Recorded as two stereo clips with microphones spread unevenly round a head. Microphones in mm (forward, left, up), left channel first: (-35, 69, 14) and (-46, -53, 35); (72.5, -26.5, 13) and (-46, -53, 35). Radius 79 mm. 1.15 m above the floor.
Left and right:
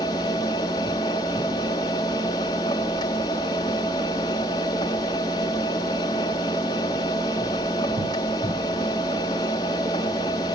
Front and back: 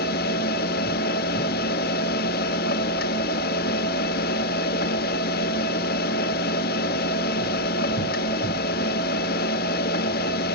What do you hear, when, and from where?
0.0 s a machine running: 15° left, 0.9 m